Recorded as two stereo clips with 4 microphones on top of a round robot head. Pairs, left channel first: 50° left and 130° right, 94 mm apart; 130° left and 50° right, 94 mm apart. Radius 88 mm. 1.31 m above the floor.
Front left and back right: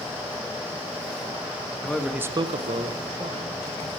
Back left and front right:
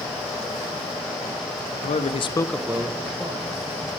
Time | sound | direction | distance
1.8 | a man speaking | 130° left | 1.0 m